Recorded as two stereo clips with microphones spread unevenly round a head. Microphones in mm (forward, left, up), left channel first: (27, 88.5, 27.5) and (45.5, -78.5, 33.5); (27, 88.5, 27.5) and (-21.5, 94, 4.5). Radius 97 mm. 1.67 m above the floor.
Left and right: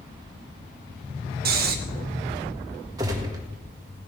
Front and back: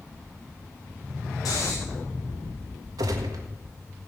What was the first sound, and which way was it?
Snoring, 55° right.